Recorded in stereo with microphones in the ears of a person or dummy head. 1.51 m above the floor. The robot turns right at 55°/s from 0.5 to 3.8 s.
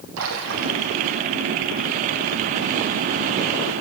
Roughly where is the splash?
Right.